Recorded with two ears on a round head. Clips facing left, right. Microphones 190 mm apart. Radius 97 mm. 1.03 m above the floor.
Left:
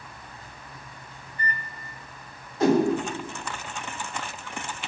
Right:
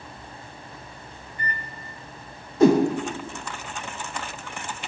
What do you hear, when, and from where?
1.3 s a microwave: 35° left (ahead or behind), 0.6 m
2.6 s a whoosh: 70° right (ahead or behind), 0.6 m